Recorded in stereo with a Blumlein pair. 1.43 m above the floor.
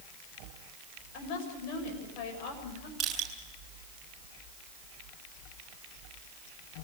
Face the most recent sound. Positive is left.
turn(degrees=-20)